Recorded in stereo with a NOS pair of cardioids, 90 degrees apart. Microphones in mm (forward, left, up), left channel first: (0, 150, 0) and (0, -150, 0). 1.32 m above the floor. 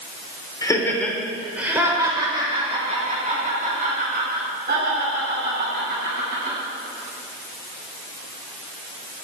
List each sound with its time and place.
0.6 s laughter: 10° left, 4 m; by 6.5 s 40° right, 10.5 m